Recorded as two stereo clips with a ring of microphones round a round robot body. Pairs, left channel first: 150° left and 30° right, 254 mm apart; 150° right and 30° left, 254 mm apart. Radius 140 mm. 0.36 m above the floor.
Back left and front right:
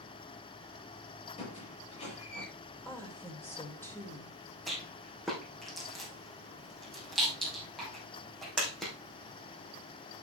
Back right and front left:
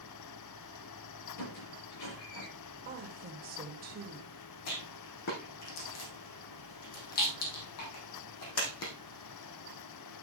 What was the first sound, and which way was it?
A squeak, 145° right.